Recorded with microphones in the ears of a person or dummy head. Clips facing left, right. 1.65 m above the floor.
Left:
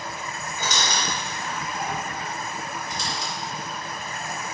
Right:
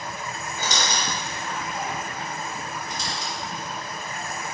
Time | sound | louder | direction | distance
0.6 | a squeak | even | 35° right (ahead or behind) | 1.4 m
2.9 | a squeak | left 1 dB | 60° left (ahead or behind) | 1.3 m